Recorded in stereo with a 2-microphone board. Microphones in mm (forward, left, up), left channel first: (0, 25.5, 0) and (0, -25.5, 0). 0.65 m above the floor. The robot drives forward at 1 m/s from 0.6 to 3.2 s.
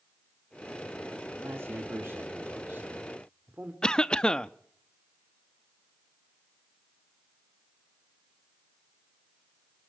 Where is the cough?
15° left (ahead or behind), 0.6 m.